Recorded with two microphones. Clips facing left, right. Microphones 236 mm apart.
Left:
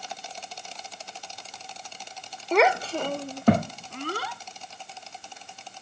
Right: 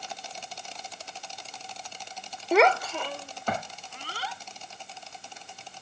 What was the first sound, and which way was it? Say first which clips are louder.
A child speaking: even; 10° right (ahead or behind).